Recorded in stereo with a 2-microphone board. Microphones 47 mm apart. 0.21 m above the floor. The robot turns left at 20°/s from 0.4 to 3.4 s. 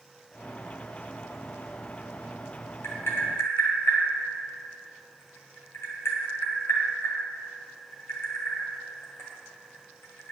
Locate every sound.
2.8 s tapping: 65° left (ahead or behind), 1.7 m; by 10.3 s 75° left (ahead or behind), 1.7 m